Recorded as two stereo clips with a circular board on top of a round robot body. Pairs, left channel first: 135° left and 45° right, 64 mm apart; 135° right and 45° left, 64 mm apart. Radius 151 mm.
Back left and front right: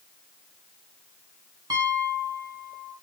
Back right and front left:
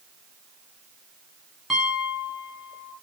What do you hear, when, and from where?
1.7 s a piano: 45° right, 2.5 m